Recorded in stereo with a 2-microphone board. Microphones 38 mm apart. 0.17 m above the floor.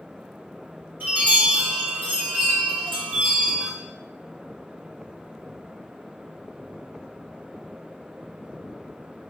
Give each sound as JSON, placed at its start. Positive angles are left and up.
{"t": 1.0, "sound": "a chime", "side_deg": -70, "distance_m": 3.5}